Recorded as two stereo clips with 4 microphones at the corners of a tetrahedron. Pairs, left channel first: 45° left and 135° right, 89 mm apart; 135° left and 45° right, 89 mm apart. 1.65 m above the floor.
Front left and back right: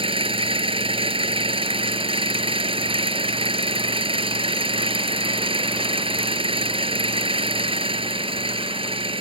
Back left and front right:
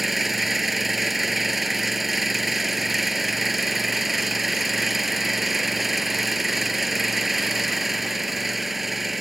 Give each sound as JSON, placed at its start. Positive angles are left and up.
{"t": 0.0, "sound": "an engine running", "azimuth_deg": -130}